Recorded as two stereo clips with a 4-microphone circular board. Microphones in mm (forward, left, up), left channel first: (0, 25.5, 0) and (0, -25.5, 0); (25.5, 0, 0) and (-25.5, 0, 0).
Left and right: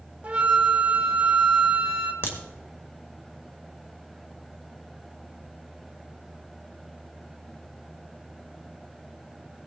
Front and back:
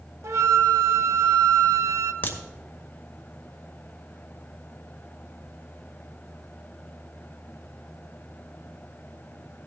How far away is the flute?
About 0.9 m.